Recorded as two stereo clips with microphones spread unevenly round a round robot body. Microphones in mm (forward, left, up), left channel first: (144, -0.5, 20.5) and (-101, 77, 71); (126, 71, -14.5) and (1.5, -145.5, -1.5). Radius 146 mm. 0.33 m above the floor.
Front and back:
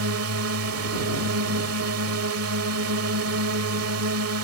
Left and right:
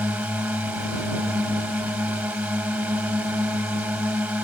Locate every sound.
0.0 s a drone: 155° left